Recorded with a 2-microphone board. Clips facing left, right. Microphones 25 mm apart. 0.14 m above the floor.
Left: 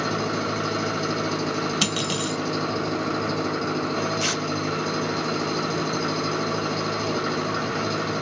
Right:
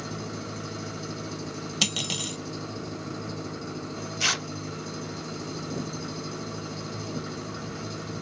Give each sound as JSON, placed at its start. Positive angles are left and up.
{"t": 0.0, "sound": "an engine running", "side_deg": 45}
{"t": 1.8, "sound": "cutlery clinking", "side_deg": 0}
{"t": 4.2, "sound": "tearing paper", "side_deg": -10}